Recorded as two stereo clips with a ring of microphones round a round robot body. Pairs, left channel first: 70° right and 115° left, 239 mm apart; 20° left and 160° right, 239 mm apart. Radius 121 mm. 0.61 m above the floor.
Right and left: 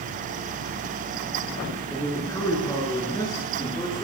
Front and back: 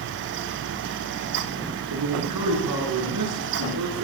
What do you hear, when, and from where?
1.9 s a man speaking: 145° right, 9 m; by 4.0 s 140° right, 10.5 m